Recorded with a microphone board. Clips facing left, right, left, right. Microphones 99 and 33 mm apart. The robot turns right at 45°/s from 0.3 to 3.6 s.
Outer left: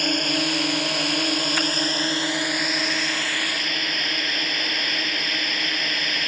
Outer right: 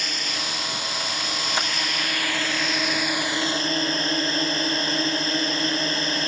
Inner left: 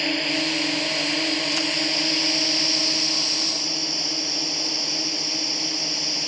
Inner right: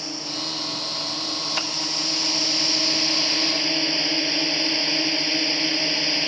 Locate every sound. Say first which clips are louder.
0.0 s a drone: outer left 8 dB, inner left 8 dB; 65° left; by 6.3 s 145° right